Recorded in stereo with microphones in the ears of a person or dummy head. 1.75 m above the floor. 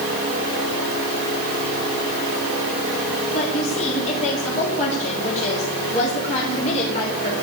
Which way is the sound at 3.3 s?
45° left (ahead or behind).